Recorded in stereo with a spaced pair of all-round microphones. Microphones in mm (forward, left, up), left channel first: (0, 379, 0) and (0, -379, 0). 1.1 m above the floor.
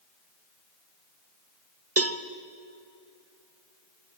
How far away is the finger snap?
I don't hear a finger snap.